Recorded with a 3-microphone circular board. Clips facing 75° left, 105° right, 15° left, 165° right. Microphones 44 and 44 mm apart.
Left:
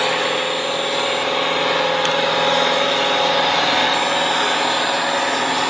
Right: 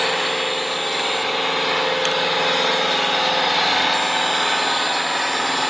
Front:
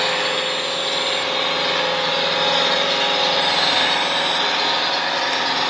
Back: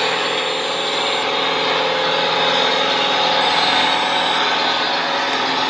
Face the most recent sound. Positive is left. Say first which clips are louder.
# left 2 dB, back 2 dB
turn(degrees=120)